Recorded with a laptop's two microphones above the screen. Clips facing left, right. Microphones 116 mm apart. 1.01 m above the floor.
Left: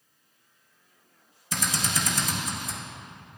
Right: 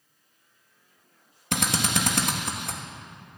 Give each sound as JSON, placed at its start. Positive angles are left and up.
{"t": 1.5, "sound": "a drill", "side_deg": -70, "distance_m": 1.2}